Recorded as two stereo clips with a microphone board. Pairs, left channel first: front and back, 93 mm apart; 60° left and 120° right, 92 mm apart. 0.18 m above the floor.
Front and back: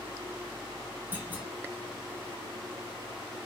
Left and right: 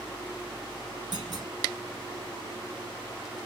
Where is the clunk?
115° right, 1.1 m.